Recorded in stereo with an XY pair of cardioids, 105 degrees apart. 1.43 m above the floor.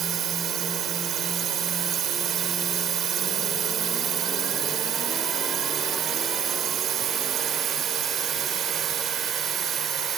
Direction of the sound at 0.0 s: 65° right.